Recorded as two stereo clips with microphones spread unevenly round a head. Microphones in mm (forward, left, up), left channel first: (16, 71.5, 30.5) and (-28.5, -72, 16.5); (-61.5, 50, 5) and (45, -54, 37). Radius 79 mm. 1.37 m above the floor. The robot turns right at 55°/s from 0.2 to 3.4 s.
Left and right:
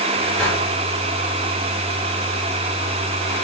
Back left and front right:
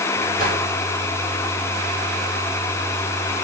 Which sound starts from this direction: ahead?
A whoosh, at 0.4 s.